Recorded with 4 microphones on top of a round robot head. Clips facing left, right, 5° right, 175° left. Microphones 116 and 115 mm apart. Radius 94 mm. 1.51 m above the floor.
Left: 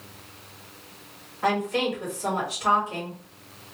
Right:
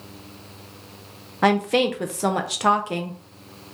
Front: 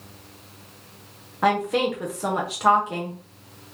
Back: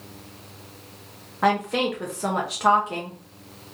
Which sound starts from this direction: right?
A woman speaking, at 1.4 s.